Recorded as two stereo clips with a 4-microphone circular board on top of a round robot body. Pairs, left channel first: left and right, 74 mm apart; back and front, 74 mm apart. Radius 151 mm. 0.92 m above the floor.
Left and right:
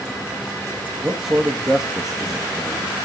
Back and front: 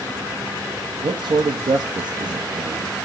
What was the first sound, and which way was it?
A man speaking, 5° right.